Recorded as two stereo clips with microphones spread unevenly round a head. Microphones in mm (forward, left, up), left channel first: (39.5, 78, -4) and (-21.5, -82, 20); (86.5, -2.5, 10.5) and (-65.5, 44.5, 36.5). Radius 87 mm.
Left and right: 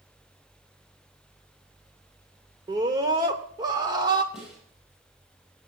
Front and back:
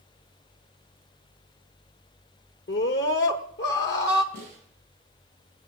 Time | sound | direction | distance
2.7 | a scream | 45° right | 0.9 m
4.3 | a snare drum | 160° left | 7 m